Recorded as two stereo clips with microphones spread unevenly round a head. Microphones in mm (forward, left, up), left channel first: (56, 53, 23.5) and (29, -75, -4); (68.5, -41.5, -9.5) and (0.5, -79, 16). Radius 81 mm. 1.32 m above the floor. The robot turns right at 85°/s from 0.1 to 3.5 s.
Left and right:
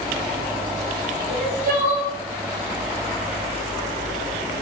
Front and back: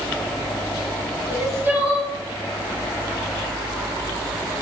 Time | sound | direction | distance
1.3 | crying | 120° right | 1.3 m